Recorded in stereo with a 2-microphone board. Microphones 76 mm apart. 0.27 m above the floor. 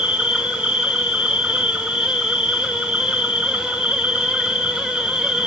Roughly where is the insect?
Centre.